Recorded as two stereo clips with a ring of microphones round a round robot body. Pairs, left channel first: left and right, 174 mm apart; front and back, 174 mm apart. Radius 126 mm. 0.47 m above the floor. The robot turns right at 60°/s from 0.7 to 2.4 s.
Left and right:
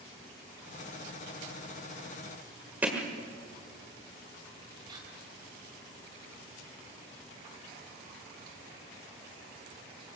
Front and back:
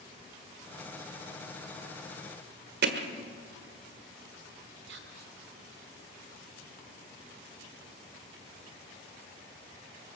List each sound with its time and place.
2.8 s hammering: 170° right, 1.5 m
4.9 s whispering: 160° right, 2 m